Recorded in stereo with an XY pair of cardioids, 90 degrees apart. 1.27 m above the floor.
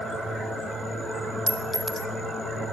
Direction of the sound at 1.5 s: 10° right.